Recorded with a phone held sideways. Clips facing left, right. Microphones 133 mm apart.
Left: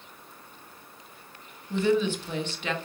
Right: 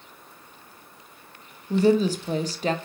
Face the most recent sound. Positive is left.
turn(degrees=-35)  # may be behind; listen again after turning